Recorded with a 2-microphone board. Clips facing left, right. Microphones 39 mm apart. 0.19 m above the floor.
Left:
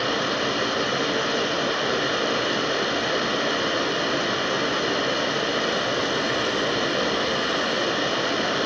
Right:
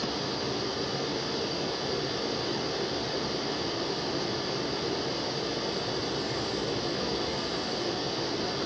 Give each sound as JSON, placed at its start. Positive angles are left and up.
{"t": 0.0, "sound": "running water", "side_deg": 60, "distance_m": 1.2}